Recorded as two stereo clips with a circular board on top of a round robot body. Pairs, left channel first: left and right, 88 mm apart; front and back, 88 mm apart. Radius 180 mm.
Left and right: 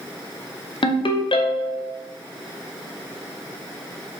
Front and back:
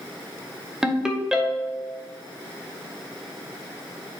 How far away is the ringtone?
About 0.9 m.